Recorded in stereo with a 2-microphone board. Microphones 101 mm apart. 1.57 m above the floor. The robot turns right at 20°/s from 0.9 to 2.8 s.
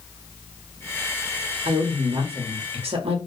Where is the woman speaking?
65° right (ahead or behind), 0.8 m; by 3.2 s 80° right, 0.8 m.